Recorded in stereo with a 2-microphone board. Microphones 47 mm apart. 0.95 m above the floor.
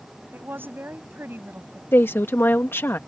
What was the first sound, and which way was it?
A woman speaking, 50° right (ahead or behind).